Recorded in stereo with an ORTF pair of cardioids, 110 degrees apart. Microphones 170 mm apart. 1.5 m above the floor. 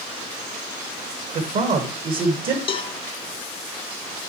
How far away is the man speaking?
About 2.0 m.